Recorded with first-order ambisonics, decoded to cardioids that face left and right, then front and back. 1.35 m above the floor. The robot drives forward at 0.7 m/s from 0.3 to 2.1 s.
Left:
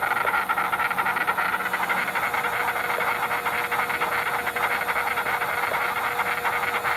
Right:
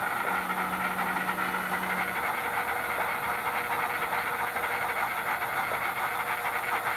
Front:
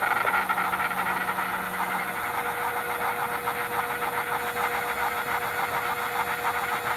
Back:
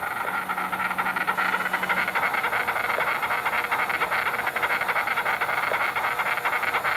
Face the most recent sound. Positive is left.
turn(degrees=150)